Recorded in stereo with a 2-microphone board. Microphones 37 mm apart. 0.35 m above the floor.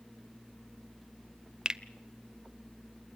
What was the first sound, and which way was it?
A finger snap, 20° right (ahead or behind).